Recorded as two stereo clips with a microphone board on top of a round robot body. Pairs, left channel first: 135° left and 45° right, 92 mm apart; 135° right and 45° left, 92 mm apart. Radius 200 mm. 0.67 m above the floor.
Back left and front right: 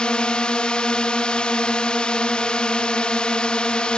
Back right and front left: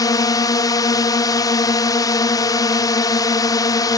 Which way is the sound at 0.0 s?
150° right.